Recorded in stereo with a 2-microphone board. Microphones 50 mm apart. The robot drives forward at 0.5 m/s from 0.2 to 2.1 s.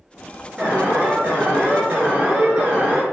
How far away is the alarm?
About 5.5 m.